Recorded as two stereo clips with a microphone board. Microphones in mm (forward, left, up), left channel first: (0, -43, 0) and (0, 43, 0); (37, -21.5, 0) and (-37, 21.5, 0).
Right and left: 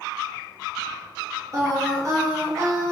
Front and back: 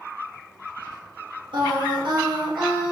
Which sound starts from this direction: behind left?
Singing, at 1.5 s.